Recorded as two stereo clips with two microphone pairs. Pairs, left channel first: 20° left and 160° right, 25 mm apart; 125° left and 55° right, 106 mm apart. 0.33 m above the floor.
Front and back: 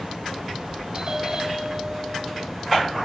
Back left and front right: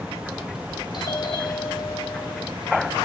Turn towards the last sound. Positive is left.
turn(degrees=145)